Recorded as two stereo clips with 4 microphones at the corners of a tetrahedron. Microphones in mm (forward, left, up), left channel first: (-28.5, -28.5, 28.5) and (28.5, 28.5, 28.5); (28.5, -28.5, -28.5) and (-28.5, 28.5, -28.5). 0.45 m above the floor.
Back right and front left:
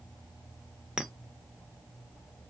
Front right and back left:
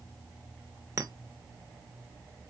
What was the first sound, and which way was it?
A clink, 120° left.